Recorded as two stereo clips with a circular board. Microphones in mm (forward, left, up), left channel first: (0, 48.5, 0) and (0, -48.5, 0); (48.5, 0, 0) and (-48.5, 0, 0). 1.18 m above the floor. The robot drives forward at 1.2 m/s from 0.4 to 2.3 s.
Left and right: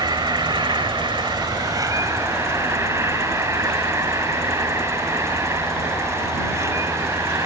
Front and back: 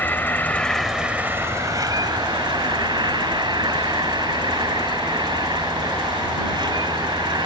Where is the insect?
65° right; by 7.5 s 145° right.